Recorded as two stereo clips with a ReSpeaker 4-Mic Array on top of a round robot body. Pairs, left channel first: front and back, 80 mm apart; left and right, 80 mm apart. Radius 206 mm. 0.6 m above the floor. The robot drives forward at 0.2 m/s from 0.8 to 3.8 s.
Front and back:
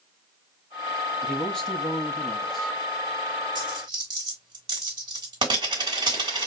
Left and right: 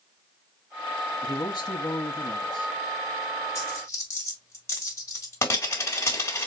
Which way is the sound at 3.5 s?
145° left.